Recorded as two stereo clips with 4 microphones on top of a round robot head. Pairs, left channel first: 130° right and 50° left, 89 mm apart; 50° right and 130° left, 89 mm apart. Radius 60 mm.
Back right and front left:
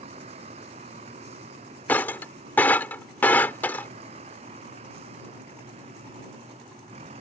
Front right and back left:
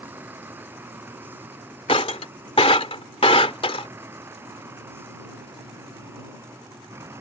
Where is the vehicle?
60° left; by 7.2 s 65° left.